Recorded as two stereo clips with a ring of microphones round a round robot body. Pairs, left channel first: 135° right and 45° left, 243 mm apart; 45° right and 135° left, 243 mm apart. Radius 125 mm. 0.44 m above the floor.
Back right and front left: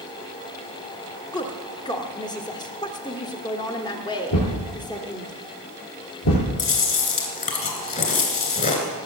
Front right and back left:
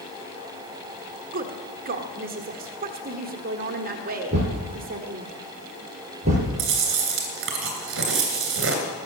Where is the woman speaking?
160° left, 1.5 m.